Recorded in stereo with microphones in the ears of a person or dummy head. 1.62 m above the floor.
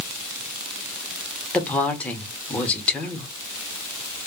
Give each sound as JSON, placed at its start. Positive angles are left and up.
{"t": 1.5, "sound": "a woman speaking", "side_deg": 10, "distance_m": 0.8}